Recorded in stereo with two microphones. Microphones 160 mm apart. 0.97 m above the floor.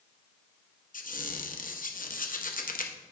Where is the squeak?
60° left (ahead or behind), 0.6 m.